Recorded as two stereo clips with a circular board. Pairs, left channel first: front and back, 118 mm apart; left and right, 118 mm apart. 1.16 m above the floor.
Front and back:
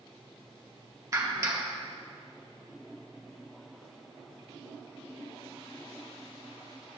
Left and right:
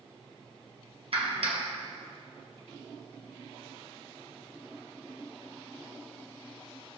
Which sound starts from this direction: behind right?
A clap, at 1.1 s.